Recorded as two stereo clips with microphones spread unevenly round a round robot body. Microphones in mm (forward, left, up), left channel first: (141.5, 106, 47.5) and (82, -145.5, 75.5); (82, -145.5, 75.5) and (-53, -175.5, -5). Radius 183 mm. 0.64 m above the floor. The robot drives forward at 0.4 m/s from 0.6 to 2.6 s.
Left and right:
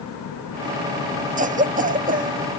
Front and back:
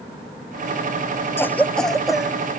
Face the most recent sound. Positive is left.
turn(degrees=-155)